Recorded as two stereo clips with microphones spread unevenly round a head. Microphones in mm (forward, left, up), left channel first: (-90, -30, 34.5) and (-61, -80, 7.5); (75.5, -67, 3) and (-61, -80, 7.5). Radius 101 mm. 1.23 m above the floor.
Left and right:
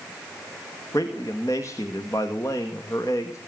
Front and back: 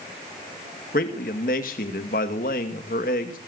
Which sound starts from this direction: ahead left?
A man speaking, at 0.9 s.